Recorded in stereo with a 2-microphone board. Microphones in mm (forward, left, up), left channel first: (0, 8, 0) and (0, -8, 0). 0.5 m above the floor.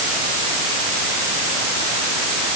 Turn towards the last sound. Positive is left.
No sound to turn to.